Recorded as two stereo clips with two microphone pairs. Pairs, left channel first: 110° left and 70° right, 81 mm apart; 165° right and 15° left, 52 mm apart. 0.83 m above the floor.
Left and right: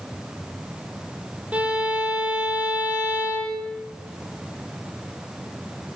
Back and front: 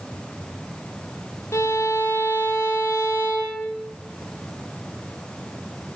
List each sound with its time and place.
1.5 s a violin: 145° right, 5 m